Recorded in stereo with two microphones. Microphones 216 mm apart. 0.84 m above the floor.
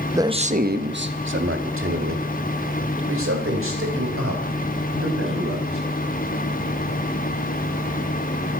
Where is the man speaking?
10° right (ahead or behind), 0.9 m; by 5.8 s 80° right, 6.5 m.